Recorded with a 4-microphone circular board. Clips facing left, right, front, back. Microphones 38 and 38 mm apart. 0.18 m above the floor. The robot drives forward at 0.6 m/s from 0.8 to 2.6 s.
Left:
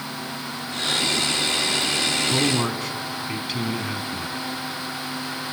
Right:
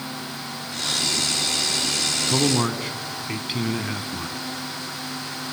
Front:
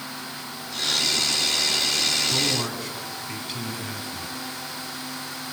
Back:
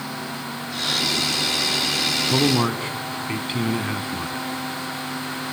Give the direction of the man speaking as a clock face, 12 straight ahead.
5 o'clock.